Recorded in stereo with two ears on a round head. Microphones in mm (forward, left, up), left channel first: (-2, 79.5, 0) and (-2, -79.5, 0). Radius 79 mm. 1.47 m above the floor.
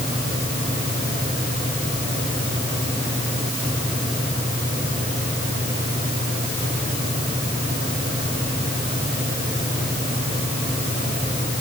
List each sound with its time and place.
Only background noise.